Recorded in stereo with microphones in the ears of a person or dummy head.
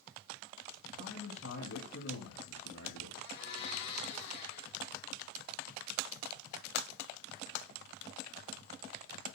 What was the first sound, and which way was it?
A man speaking, 75° left (ahead or behind).